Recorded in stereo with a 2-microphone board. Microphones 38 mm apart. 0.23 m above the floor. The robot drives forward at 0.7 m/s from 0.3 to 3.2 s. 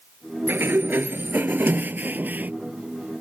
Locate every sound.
0.5 s a sliding door: 65° right (ahead or behind); by 2.5 s 50° right (ahead or behind)